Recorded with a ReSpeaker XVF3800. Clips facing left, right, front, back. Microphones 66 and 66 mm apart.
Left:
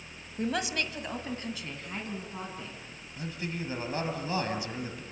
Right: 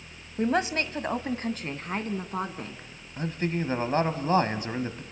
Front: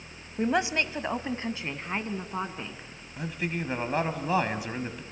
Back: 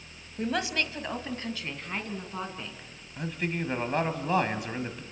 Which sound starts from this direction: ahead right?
A woman speaking, at 0.4 s.